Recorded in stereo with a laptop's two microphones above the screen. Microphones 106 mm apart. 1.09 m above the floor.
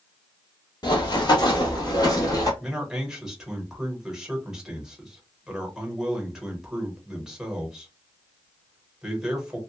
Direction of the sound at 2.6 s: 5° right (ahead or behind).